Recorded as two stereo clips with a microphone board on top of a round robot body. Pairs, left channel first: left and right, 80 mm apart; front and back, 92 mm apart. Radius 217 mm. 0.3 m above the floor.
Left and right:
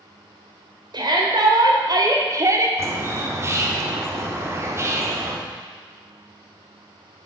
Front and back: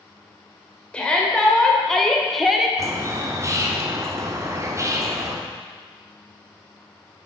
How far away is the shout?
About 2 m.